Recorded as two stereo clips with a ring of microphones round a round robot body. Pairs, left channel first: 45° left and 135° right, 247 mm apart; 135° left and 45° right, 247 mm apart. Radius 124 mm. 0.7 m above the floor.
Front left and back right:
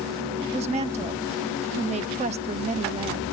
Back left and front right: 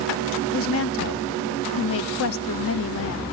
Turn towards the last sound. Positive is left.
turn(degrees=160)